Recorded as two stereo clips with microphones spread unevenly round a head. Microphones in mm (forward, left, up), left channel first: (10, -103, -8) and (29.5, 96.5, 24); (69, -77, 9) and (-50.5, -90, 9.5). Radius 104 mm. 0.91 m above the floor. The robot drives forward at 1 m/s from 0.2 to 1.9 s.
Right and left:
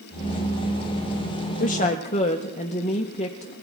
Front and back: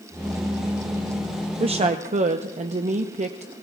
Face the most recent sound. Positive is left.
turn(degrees=-150)